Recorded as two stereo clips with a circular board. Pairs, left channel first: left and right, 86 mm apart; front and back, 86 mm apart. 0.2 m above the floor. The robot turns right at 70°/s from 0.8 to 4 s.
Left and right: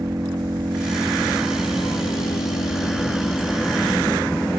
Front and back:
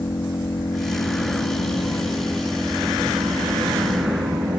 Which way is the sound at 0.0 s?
40° right.